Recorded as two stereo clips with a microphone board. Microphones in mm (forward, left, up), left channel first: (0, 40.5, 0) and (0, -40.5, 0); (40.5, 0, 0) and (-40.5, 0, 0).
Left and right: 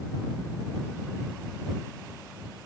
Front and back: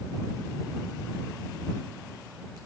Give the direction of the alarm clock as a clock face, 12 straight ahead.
I don't hear an alarm clock.